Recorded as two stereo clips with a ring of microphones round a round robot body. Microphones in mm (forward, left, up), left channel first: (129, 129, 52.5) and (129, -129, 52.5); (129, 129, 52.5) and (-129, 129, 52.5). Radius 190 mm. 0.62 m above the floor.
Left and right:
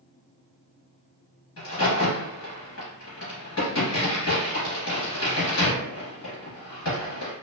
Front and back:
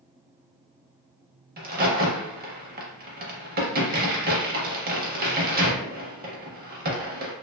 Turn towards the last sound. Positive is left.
turn(degrees=130)